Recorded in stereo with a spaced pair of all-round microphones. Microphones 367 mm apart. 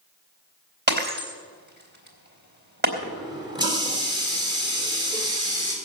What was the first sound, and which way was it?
Breaking glass, 30° right (ahead or behind).